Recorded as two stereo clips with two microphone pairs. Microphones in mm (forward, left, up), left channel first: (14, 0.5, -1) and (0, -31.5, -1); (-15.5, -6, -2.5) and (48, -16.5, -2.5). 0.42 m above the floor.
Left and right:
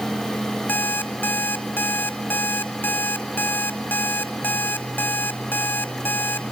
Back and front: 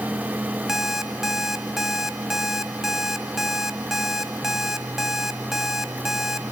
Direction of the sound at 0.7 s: 75° left.